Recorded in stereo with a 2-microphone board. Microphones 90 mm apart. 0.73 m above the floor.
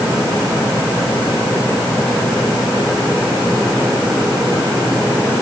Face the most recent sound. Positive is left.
No sound to turn to.